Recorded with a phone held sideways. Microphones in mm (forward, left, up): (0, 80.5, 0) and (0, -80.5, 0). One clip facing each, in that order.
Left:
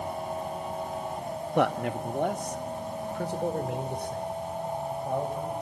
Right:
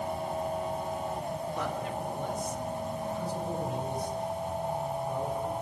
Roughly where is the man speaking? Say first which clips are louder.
Left 7 dB; left.